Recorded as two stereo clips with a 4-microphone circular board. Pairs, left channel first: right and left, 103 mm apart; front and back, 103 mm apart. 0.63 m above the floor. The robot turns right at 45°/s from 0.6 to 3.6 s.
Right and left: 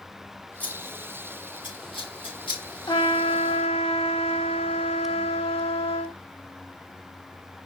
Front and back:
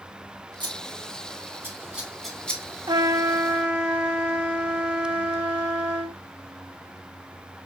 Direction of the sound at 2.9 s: 135° right.